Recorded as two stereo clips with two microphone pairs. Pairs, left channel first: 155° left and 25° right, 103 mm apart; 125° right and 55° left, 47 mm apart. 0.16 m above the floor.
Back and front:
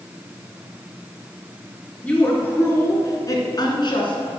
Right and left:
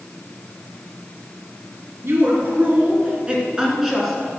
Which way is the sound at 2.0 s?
80° left.